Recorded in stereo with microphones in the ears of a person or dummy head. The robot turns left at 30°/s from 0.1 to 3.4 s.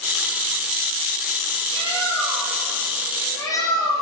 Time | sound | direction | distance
1.7 | a bird | 155° right | 3 m